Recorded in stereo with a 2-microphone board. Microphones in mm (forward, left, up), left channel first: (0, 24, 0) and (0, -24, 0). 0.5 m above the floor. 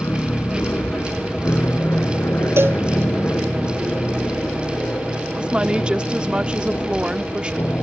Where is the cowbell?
60° right (ahead or behind).